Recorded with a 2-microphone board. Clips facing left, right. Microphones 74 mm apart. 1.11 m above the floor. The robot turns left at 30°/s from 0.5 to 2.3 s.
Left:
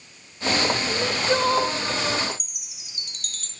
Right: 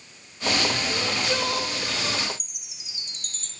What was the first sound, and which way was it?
Crying, 25° left (ahead or behind).